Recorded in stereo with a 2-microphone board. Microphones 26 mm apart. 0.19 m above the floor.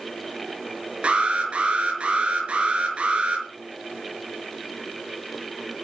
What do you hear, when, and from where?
1.0 s an alarm: 45° right (ahead or behind), 5 m